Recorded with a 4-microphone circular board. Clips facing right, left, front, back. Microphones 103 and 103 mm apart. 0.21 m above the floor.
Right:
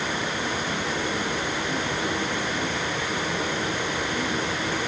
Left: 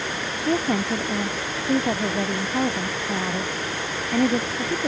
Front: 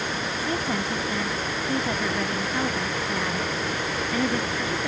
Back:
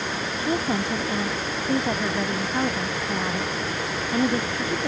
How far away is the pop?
No pop in this recording.